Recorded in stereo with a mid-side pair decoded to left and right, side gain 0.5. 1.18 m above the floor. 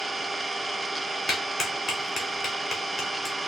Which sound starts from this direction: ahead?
An engine running, at 0.0 s.